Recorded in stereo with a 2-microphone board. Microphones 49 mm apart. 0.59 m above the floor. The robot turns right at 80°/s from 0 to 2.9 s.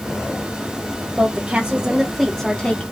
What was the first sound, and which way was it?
A woman speaking, 80° right.